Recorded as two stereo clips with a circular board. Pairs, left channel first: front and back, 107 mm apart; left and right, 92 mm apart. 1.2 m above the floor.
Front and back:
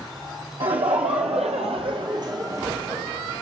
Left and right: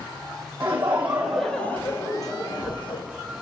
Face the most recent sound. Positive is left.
turn(degrees=115)